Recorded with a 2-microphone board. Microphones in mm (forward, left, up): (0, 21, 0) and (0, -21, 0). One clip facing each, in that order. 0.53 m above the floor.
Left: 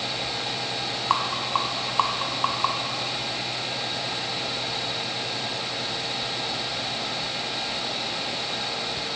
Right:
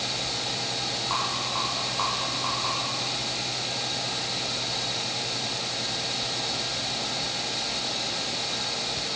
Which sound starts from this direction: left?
A rattle, at 1.1 s.